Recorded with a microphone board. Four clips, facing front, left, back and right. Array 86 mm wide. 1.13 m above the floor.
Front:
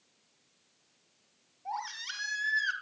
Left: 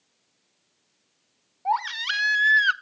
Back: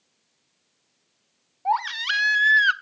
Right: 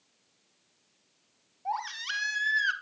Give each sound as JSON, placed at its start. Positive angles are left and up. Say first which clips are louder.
{"t": 1.6, "sound": "a baby crying", "louder": "left 8 dB, back 14 dB", "azimuth_deg": 150, "distance_m": 1.0}